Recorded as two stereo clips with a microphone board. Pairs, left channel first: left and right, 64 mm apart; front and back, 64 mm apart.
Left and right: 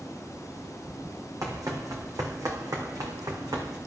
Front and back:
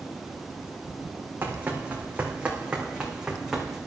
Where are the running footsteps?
120° right, 3 m; by 3.8 s 100° right, 4 m.